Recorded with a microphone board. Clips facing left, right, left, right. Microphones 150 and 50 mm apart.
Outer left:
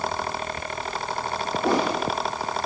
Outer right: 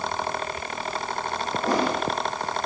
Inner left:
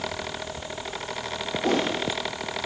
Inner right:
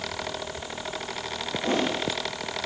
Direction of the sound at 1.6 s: 75° left (ahead or behind).